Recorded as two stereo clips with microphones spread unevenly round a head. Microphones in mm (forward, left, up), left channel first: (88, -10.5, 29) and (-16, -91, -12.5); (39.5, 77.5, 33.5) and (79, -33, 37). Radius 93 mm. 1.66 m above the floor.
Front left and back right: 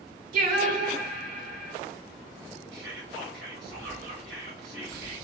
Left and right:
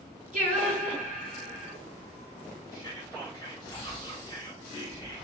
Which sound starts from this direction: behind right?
Singing, at 0.3 s.